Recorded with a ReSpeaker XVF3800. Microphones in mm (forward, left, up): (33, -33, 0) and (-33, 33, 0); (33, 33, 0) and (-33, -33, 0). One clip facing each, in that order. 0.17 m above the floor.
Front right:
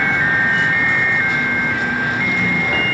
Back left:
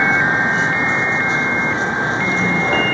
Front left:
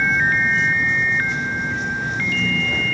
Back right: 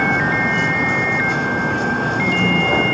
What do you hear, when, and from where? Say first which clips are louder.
0.0 s a vehicle: back left 2 dB, back right 2 dB; 155° right; by 2.9 s 160° right